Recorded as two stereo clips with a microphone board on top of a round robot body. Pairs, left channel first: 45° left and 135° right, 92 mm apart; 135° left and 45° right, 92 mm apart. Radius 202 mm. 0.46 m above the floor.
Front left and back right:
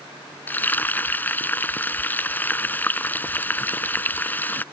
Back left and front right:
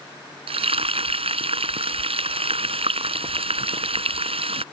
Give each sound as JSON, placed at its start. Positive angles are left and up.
{"t": 0.5, "sound": "frying", "azimuth_deg": -30}